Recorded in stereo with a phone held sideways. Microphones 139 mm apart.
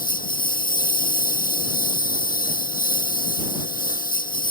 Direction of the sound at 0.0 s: 85° left.